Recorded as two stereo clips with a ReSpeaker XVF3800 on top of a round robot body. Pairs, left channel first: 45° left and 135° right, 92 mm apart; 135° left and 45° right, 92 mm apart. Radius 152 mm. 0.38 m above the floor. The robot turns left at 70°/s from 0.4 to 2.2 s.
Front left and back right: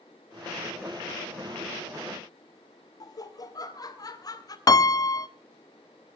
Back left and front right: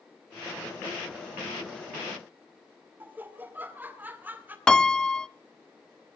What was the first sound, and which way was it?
Laughter, 20° left.